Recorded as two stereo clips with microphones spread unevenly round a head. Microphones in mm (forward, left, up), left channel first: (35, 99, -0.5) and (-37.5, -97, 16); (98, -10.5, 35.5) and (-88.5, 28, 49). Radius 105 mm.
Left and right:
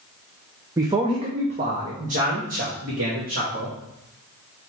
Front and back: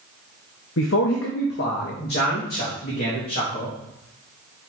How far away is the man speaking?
About 0.7 m.